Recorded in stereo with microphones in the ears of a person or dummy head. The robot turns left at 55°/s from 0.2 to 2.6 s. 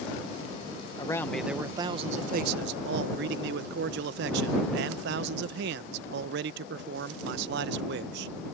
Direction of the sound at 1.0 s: 20° left.